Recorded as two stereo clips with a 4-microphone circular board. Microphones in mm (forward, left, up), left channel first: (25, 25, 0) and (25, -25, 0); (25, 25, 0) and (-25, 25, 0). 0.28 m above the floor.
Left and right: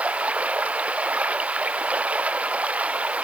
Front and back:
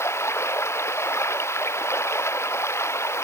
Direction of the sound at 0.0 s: 25° right.